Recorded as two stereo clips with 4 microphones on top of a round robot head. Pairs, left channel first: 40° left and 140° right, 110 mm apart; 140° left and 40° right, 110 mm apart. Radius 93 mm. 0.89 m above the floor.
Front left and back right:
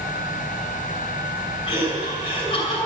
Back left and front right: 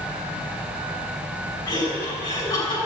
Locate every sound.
1.7 s laughter: 85° left, 6 m